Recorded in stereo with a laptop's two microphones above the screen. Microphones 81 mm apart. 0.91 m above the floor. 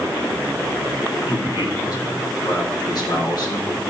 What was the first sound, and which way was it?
A man speaking, 60° left (ahead or behind).